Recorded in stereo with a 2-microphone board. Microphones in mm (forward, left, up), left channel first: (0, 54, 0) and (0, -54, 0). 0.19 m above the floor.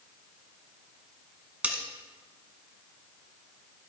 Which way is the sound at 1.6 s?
15° right (ahead or behind).